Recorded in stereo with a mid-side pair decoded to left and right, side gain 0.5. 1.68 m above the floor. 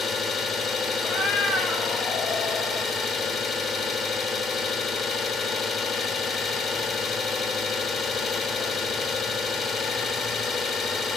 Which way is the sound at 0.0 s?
50° left.